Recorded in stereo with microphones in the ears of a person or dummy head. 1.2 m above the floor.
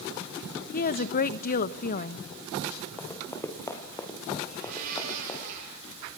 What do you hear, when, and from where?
0.7 s a woman speaking: 45° left (ahead or behind), 1.0 m
3.0 s running footsteps: 15° left (ahead or behind), 3.5 m
4.5 s a blender: 45° right (ahead or behind), 8 m